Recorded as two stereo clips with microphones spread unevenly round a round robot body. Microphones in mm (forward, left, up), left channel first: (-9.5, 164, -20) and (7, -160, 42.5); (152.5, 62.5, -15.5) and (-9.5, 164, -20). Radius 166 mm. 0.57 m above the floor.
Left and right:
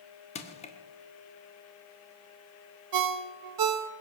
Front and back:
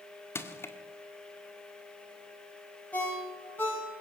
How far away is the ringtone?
About 1.0 m.